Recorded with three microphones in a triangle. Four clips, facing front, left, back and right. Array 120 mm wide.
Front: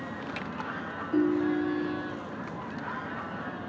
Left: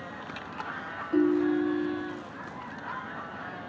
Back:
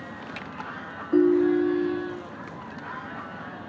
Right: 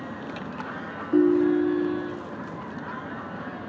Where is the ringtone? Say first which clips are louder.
Right 5 dB, back 6 dB; 150° right, 0.6 m.